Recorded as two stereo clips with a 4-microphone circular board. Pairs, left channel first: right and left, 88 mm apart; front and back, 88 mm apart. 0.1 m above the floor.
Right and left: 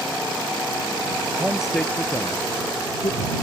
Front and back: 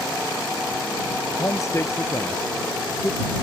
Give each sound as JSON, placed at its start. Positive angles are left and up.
{"t": 1.4, "sound": "a man speaking", "azimuth_deg": 30}